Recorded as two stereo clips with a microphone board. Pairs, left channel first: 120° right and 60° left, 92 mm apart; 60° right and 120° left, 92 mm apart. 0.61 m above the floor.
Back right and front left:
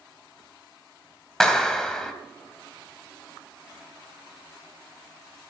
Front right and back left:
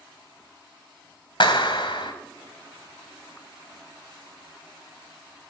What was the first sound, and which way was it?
A clap, 35° right.